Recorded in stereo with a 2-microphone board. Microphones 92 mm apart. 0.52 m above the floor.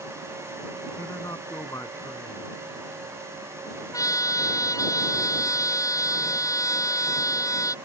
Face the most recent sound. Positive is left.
turn(degrees=35)  # may be behind; listen again after turning